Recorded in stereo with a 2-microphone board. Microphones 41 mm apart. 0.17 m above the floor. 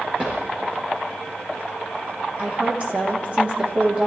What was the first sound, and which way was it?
A drawer, 35° right (ahead or behind).